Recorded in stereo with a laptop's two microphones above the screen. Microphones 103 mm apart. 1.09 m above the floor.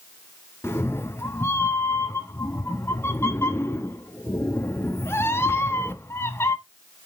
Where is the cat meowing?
25° left (ahead or behind), 0.9 m.